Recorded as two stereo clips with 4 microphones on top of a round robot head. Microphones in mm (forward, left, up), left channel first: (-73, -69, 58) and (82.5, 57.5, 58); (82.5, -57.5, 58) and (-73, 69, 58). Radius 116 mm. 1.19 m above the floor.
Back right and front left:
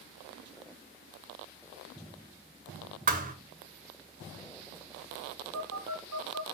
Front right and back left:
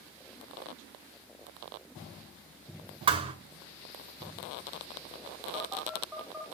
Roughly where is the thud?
Left.